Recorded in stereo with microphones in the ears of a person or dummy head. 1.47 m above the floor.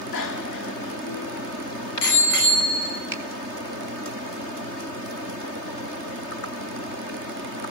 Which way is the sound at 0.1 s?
70° left (ahead or behind).